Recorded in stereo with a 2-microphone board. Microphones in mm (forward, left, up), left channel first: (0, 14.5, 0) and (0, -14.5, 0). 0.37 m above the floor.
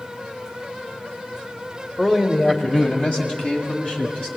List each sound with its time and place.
2.0 s a man speaking: 5° left (ahead or behind), 1.2 m; by 4.3 s 45° left (ahead or behind), 3 m